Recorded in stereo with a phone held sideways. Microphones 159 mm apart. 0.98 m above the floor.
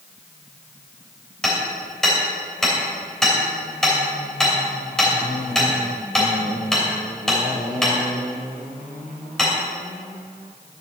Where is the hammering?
5° left (ahead or behind), 3 m.